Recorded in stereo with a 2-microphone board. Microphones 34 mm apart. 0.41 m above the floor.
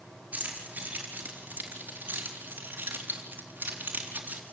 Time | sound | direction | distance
0.3 | keys jangling | 55° right (ahead or behind) | 6 m